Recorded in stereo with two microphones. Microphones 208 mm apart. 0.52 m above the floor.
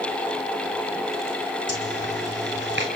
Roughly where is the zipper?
Right.